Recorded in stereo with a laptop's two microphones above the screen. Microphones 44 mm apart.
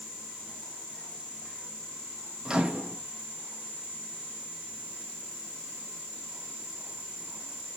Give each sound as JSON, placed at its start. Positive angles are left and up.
{"t": 2.5, "sound": "a microwave", "side_deg": -20, "distance_m": 1.3}